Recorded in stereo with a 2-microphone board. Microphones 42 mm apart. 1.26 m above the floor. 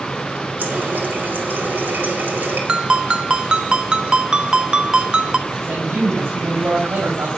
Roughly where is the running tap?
Right.